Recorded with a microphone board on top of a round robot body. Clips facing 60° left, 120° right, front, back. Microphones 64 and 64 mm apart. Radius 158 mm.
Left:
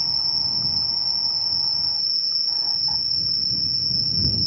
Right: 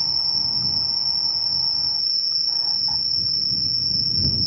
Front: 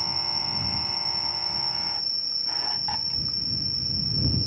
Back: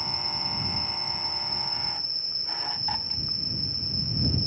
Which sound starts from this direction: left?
An insect, at 0.0 s.